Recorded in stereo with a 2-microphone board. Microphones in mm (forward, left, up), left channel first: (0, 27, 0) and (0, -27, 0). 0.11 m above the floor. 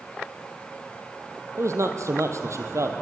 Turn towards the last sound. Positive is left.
turn(degrees=-65)  # may be behind; listen again after turning